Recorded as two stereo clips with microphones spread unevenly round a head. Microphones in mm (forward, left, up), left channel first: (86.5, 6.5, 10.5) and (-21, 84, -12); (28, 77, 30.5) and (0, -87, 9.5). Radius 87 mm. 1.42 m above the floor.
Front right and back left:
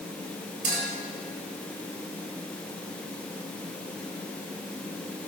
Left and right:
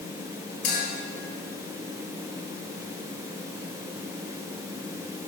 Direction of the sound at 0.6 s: 115° left.